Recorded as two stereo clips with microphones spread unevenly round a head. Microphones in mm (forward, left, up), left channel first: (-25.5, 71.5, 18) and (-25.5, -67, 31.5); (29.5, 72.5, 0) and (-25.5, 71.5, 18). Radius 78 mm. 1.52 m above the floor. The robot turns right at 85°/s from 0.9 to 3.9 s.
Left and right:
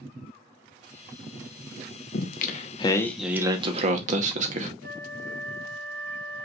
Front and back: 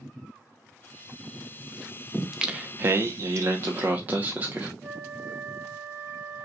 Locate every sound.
2.1 s singing: 95° left, 0.9 m; by 4.7 s 115° right, 0.9 m
4.8 s a flute: 105° right, 2 m